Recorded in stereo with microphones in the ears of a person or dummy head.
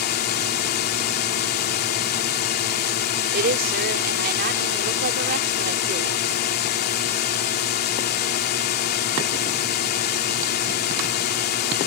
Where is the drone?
45° left (ahead or behind).